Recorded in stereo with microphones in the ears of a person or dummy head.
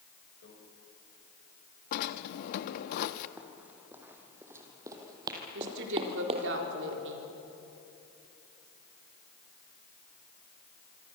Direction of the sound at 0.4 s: 65° left (ahead or behind).